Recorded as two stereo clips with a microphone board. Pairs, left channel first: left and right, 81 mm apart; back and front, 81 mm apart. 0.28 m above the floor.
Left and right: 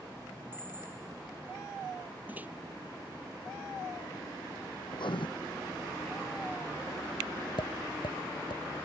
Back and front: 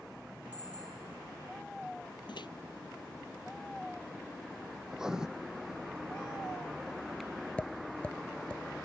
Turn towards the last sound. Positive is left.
turn(degrees=105)